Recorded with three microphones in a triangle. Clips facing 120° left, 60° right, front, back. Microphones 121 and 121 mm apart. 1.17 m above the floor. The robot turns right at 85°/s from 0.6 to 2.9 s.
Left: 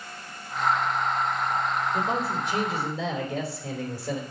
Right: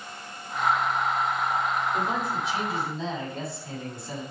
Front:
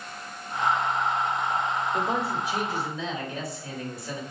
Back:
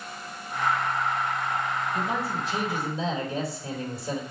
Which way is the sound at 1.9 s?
30° left.